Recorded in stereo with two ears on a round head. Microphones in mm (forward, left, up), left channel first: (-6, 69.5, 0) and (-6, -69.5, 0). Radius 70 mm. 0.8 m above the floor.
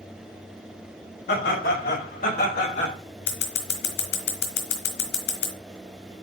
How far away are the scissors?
About 2.5 m.